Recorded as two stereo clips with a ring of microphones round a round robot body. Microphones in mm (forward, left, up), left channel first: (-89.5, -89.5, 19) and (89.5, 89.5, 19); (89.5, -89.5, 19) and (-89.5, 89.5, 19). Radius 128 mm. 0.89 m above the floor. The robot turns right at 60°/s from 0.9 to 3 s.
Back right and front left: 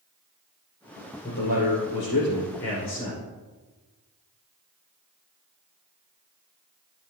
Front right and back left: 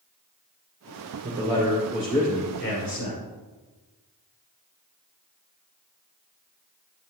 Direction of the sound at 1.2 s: 170° right.